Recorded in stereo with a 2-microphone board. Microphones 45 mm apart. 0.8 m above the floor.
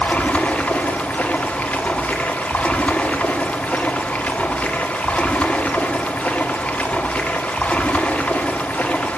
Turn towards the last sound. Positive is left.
turn(degrees=30)  # may be behind; listen again after turning